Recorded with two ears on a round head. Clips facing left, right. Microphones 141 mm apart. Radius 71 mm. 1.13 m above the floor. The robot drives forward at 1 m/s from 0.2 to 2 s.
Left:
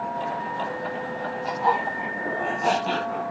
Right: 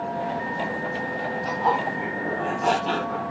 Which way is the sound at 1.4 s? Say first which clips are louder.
Even; 5° left (ahead or behind).